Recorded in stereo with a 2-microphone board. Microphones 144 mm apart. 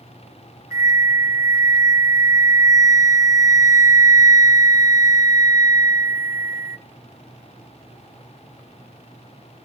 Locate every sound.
0.7 s a flute: 25° right (ahead or behind), 0.8 m